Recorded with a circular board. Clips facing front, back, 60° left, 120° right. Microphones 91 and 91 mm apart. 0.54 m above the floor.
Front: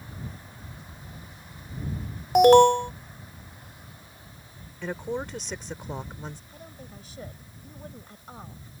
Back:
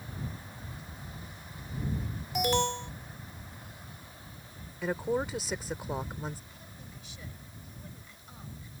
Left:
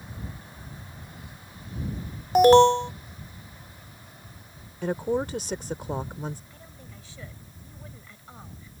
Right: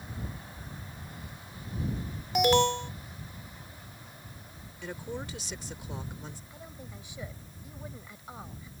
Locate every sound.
2.4 s an alarm: 15° left
4.8 s a woman speaking: 95° left
6.5 s a woman speaking: 45° right